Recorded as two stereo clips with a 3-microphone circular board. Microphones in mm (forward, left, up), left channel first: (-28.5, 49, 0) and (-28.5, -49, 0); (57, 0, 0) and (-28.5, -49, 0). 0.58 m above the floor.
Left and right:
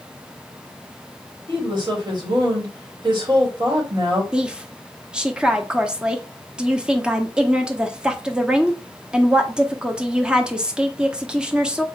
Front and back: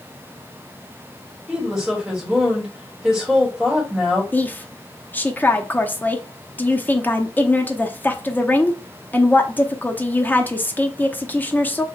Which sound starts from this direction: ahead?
A woman speaking, at 4.3 s.